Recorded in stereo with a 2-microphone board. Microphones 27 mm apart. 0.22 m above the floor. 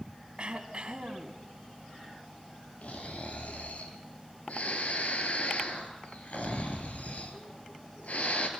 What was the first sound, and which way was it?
Throat clearing, 40° right (ahead or behind).